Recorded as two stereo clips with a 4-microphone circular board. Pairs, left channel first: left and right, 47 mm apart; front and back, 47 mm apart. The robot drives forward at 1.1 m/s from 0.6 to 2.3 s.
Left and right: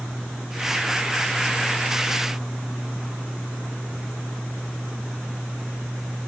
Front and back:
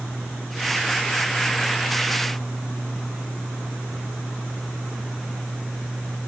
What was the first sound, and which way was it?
Only background noise.